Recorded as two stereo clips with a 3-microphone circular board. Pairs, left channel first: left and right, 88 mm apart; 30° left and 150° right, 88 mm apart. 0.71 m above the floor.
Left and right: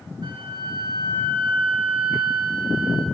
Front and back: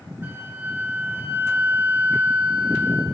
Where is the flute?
90° right, 1.3 m.